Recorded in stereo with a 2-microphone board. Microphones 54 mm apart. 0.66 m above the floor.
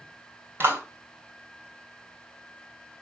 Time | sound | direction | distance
0.6 | a clap | 45° right (ahead or behind) | 3 m